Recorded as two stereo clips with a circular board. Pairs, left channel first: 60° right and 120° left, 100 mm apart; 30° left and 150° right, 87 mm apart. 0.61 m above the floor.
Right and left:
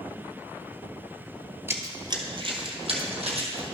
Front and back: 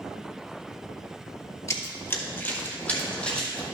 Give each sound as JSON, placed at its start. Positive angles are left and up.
{"t": 1.7, "sound": "running footsteps", "azimuth_deg": 65, "distance_m": 0.8}